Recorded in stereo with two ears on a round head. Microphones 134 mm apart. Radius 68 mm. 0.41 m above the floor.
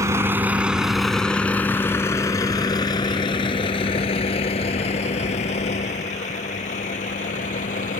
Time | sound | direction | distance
0.0 | a vehicle | 20° right (ahead or behind) | ?